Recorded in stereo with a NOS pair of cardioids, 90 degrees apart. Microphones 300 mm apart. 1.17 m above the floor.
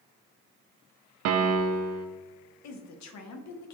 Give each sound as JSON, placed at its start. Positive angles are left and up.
{"t": 1.2, "sound": "a piano", "azimuth_deg": -60, "distance_m": 0.5}
{"t": 2.6, "sound": "a woman speaking", "azimuth_deg": 70, "distance_m": 0.6}